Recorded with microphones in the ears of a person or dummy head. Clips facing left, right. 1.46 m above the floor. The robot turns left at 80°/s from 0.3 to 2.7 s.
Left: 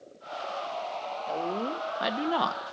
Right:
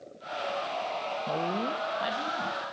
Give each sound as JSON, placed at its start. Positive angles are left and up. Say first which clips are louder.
{"t": 1.3, "sound": "a woman speaking", "louder": "left 1 dB", "azimuth_deg": -170, "distance_m": 1.2}